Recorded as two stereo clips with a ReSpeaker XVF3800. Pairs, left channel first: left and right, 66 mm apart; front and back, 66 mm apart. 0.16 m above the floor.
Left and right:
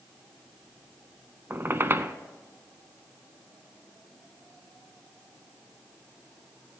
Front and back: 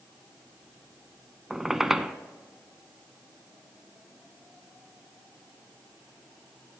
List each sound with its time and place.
1.5 s a squeak: 100° right, 0.6 m